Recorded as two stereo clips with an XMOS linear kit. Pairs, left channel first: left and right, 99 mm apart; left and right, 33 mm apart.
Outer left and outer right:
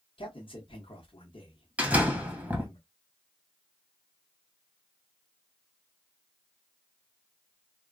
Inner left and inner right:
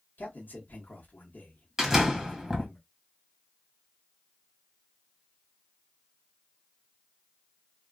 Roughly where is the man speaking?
Left.